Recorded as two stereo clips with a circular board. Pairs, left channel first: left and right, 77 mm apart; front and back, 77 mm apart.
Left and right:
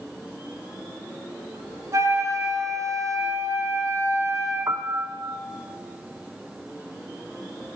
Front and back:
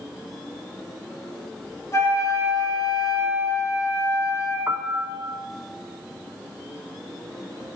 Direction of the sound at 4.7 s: 125° right.